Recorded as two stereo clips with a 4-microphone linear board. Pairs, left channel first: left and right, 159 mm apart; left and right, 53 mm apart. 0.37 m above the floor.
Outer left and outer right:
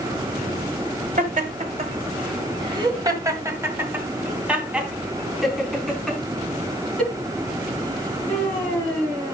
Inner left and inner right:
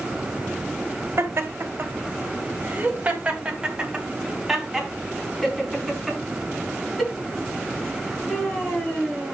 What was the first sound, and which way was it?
Laughter, 50° right (ahead or behind).